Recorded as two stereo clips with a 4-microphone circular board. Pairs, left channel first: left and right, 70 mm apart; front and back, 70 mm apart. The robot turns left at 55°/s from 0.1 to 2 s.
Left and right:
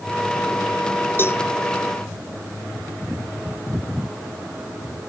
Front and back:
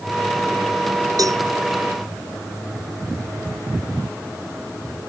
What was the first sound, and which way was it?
A cowbell, 150° left.